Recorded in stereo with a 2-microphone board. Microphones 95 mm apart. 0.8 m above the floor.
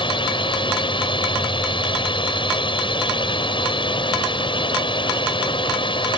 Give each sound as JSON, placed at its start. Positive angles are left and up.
{"t": 0.0, "sound": "a drone", "side_deg": 60}